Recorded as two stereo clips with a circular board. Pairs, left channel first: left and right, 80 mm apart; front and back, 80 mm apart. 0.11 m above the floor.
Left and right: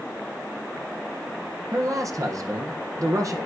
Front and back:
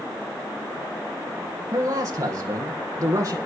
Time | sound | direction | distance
1.7 | a man speaking | 135° right | 5.5 m